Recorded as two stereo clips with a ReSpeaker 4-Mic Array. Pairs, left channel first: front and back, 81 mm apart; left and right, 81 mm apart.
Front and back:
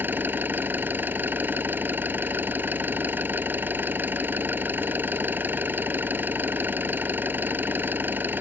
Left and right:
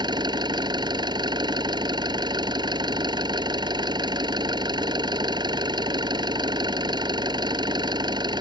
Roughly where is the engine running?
Behind right.